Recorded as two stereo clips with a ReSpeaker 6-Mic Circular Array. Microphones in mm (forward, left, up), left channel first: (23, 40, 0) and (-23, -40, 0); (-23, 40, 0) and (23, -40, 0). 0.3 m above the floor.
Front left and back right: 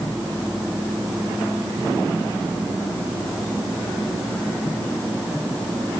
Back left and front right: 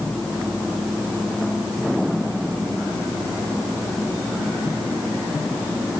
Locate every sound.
Only background noise.